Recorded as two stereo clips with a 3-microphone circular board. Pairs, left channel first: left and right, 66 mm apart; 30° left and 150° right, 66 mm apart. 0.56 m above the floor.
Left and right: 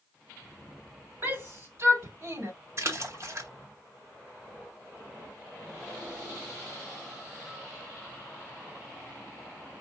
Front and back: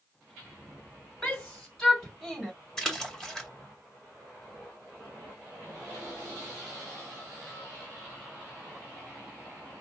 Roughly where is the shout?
Ahead right.